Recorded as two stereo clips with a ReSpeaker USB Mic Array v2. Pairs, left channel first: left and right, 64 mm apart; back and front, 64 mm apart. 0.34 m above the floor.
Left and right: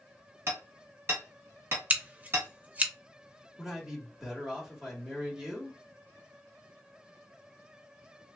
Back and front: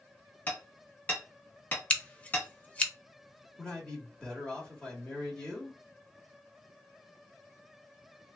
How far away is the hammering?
About 1.3 m.